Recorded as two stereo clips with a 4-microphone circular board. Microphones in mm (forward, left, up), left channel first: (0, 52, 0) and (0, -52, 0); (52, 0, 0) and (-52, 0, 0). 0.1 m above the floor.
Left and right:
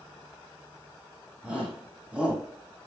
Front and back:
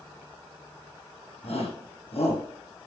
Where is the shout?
10° right, 4.5 m.